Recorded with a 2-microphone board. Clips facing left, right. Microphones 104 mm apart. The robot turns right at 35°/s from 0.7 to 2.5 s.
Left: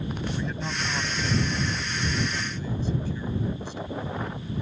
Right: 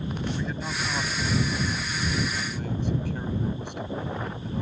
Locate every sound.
0.3 s a man speaking: straight behind; by 4.6 s 115° right